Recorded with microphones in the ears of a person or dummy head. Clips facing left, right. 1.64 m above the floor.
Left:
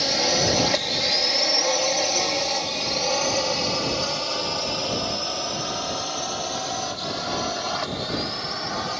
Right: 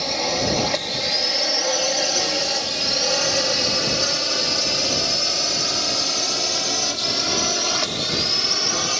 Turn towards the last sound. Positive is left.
turn(degrees=-50)  # may be behind; listen again after turning